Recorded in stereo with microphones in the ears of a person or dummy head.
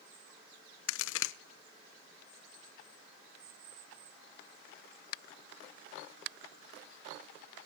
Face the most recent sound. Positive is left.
turn(degrees=80)